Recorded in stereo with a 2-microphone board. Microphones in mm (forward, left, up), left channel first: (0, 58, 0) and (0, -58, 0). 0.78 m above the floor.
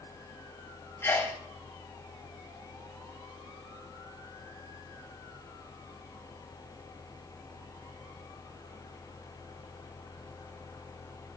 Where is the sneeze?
20° left (ahead or behind), 1.5 m.